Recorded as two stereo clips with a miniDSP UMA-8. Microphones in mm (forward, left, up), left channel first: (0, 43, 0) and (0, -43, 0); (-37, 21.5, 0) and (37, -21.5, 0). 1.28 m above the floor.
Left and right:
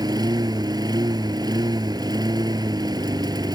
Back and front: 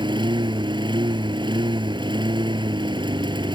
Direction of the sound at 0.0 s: 50° right.